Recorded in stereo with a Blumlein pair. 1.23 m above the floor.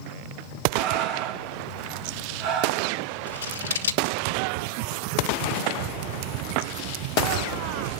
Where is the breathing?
45° right, 4.5 m.